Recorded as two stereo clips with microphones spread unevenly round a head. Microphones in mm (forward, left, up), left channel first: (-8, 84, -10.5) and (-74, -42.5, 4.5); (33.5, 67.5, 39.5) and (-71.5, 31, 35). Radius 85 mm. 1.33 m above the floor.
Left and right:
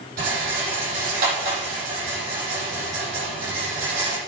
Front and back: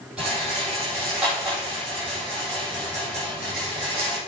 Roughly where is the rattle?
Right.